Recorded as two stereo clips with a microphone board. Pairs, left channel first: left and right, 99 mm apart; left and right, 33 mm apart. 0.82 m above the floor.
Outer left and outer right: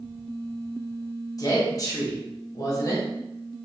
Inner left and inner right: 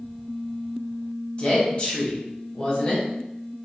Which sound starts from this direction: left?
A woman speaking, at 1.4 s.